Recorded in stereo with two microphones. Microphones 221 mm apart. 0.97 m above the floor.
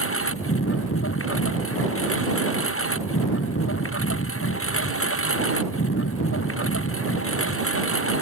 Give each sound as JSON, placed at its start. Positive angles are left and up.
{"t": 0.0, "sound": "a lawn mower", "side_deg": 80}